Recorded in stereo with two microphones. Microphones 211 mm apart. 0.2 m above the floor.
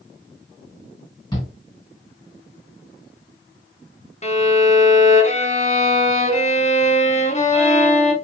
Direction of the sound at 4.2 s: 30° left (ahead or behind).